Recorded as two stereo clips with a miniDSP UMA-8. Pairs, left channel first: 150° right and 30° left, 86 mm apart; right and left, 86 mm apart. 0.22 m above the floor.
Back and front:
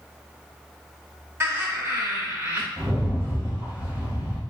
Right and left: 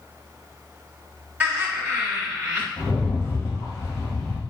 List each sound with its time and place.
1.4 s laughter: 35° left, 2.0 m
2.8 s a rattle: 35° right, 1.8 m